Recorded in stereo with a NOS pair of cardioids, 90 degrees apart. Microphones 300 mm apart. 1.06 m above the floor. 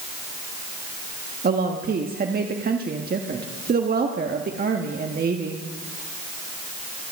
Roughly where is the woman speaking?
Ahead right.